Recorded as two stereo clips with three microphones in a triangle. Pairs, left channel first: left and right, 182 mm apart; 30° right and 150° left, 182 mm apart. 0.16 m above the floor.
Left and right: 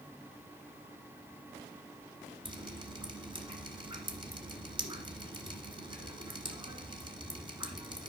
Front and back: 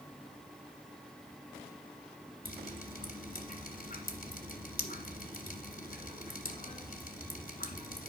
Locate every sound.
2.5 s dripping: 40° right, 1.3 m